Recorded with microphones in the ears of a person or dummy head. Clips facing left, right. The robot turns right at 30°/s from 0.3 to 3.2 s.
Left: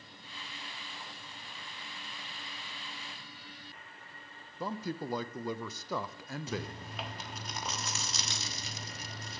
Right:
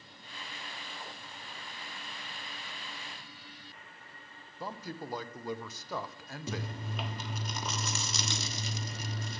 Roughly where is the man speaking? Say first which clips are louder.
Left 4 dB; left.